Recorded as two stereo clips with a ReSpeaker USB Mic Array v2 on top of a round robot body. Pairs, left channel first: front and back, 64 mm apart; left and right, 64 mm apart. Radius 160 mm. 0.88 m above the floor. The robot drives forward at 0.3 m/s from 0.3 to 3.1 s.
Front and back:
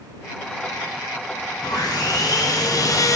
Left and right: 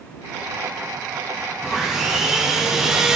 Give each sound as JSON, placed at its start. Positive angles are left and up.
{"t": 1.6, "sound": "sawing", "azimuth_deg": -5, "distance_m": 0.8}